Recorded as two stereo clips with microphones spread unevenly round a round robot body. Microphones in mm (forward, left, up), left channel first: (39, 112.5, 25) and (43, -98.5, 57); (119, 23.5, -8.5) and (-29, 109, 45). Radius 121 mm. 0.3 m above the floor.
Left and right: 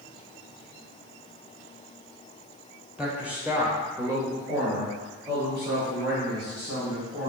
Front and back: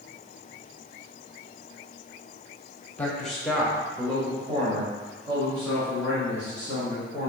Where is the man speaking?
5° left, 1.1 m; by 7.3 s 165° right, 2 m.